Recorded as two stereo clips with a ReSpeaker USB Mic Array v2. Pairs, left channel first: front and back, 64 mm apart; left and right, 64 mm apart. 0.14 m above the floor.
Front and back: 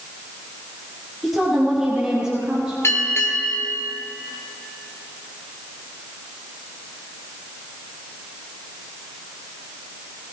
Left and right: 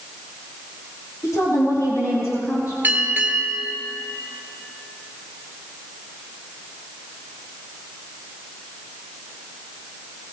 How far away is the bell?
About 1.8 m.